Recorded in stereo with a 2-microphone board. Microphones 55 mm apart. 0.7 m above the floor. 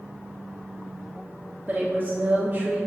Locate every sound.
1.7 s a woman speaking: 35° right (ahead or behind), 0.9 m